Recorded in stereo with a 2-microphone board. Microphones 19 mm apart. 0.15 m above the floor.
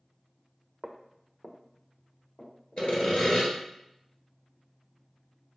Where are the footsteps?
40° right (ahead or behind), 0.5 m; by 2.9 s 55° left (ahead or behind), 3 m.